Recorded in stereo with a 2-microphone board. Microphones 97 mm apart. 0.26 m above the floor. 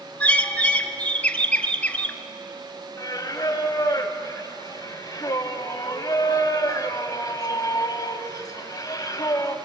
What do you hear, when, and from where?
0.2 s a bird: 15° left (ahead or behind), 0.8 m
3.0 s singing: 40° left (ahead or behind), 1.2 m